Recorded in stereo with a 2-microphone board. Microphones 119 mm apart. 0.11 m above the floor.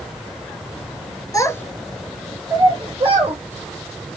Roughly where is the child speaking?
Left.